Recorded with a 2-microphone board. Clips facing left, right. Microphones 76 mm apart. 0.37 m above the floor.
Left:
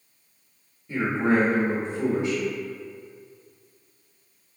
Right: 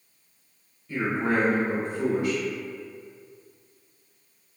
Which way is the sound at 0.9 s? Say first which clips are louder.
Left 3 dB; 20° left (ahead or behind).